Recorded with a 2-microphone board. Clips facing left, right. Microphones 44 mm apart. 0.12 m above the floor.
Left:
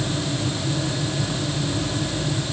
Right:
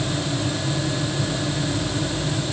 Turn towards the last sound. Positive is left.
No sound to turn to.